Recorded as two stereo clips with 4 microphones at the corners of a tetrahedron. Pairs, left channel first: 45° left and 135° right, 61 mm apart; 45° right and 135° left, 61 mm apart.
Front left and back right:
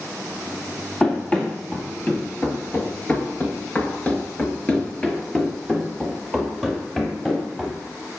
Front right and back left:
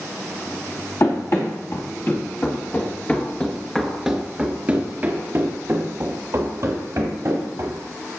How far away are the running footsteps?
About 3 m.